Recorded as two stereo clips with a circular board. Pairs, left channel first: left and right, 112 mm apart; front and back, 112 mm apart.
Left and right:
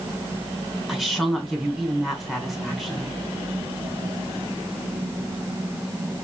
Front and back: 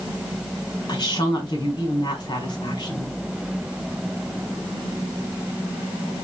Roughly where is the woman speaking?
Ahead.